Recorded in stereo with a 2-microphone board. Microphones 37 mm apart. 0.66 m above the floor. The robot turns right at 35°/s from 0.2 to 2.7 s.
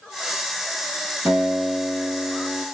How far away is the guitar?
About 5 m.